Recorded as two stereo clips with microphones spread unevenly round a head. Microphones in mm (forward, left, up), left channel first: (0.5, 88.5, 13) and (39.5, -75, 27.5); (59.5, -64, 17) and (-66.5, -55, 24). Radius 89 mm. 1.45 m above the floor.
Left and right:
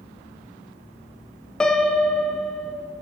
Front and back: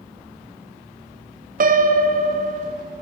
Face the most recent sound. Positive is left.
turn(degrees=-170)